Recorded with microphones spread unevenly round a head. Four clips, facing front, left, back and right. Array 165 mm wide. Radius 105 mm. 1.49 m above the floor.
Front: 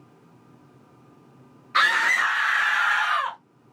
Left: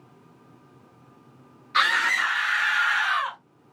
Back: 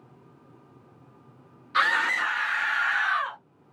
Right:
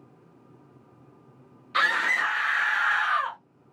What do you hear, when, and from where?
1.7 s a scream: 80° right, 1.3 m; by 3.4 s 45° right, 1.5 m